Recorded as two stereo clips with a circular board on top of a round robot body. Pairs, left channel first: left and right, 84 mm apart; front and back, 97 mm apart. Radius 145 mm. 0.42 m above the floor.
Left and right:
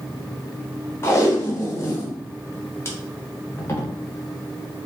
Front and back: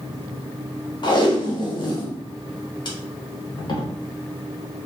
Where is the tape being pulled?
30° left, 0.8 m.